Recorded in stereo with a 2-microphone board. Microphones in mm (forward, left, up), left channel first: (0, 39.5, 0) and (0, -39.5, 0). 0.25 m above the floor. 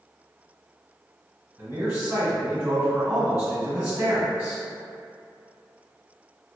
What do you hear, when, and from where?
1.6 s a man speaking: 15° right (ahead or behind), 1.4 m